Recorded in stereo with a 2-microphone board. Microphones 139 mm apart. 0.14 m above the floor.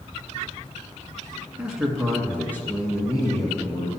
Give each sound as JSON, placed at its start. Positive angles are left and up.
{"t": 1.6, "sound": "a man speaking", "side_deg": -5, "distance_m": 1.4}